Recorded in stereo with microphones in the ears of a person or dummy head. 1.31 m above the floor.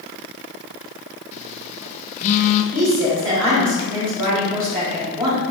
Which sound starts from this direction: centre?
A woman speaking, at 2.7 s.